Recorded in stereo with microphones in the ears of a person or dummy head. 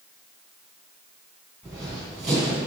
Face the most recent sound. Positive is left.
turn(degrees=0)  # may be behind; listen again after turning